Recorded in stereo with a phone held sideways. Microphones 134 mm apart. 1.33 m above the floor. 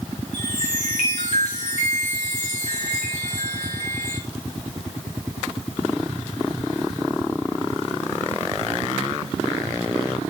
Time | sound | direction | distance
0.3 | a chime | 55° left (ahead or behind) | 4 m